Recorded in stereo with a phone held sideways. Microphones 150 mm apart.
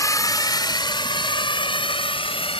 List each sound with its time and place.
0.0 s a drone: 25° left (ahead or behind); by 2.6 s 40° left (ahead or behind)